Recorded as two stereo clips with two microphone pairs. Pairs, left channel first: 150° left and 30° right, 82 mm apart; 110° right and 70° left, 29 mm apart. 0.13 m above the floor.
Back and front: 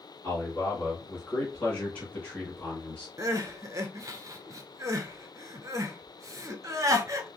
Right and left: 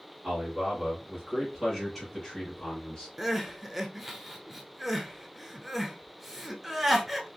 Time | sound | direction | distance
0.2 | a man speaking | 105° left | 1.8 m
3.2 | crying | 5° right | 0.5 m